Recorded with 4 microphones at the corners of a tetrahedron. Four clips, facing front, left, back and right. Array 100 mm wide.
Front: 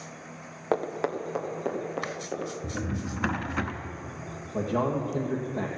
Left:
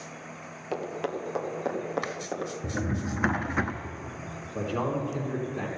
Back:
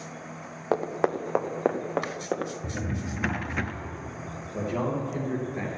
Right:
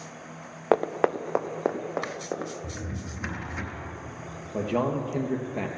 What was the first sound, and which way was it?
Running footsteps, 95° right.